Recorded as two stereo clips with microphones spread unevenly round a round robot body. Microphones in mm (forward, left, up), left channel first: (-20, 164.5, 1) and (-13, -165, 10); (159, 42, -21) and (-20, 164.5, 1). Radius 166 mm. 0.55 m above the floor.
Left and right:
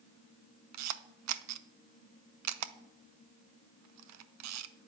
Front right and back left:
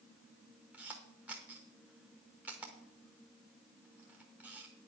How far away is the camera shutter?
About 0.7 m.